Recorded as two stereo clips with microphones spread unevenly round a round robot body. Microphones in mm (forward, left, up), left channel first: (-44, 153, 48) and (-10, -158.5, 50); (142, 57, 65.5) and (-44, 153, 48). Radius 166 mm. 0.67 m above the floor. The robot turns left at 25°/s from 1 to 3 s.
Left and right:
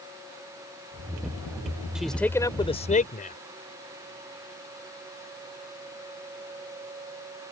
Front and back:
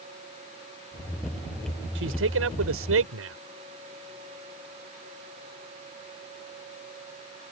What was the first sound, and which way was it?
A man speaking, 170° right.